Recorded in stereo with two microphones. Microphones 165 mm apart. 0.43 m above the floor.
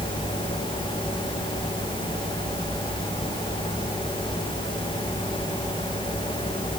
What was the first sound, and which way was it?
Only background noise.